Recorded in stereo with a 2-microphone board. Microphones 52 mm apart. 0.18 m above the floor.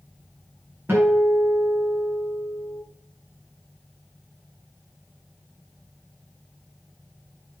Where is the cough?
I don't hear a cough.